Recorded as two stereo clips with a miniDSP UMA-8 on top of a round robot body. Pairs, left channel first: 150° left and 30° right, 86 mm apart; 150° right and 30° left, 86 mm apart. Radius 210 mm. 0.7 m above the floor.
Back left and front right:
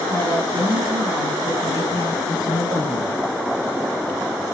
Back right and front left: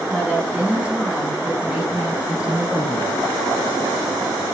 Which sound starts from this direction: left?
A woman speaking, at 0.1 s.